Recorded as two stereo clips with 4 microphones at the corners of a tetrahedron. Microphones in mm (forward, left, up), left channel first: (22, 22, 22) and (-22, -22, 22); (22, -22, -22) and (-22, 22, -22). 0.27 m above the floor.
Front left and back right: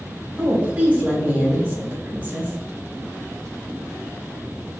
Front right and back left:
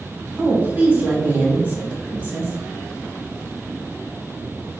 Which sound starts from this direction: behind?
A woman speaking, at 0.4 s.